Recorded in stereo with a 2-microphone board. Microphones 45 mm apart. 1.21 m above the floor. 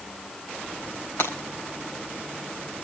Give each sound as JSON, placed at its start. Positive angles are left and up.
{"t": 1.2, "sound": "breaking glass", "side_deg": 65, "distance_m": 4.5}